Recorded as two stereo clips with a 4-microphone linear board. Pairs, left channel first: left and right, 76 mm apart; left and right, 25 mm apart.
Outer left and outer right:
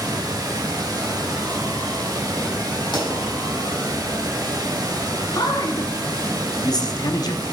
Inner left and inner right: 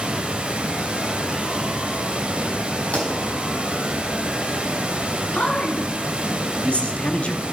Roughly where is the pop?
Left.